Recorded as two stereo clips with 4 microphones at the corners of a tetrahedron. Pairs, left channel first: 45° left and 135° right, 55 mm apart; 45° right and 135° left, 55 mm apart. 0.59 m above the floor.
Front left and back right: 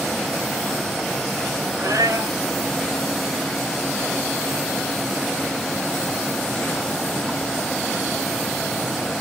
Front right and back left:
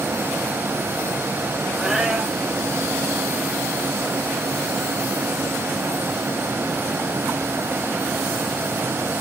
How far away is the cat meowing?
About 7 m.